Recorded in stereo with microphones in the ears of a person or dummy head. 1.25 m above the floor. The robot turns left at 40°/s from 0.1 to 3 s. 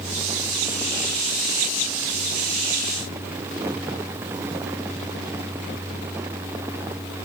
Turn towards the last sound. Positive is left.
No sound to turn to.